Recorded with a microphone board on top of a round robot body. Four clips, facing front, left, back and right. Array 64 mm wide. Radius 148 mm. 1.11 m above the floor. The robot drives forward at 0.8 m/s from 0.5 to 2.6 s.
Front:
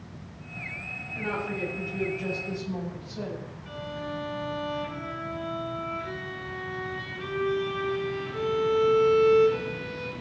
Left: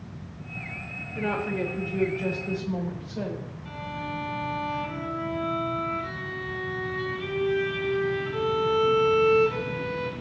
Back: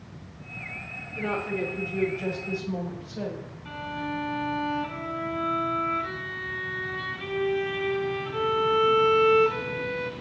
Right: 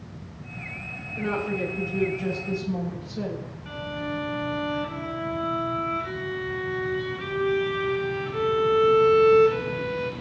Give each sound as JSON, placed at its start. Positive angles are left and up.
{"t": 1.1, "sound": "a woman speaking", "azimuth_deg": 100, "distance_m": 4.5}
{"t": 3.6, "sound": "a violin", "azimuth_deg": 155, "distance_m": 3.5}